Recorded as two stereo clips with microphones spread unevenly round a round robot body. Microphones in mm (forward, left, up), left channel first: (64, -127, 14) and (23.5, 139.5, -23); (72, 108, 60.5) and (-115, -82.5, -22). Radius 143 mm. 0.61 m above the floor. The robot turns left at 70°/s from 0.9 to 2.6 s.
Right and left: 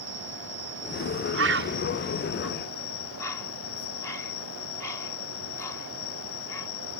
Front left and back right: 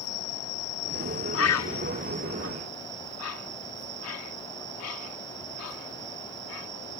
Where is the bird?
90° left; by 6.7 s 5° left.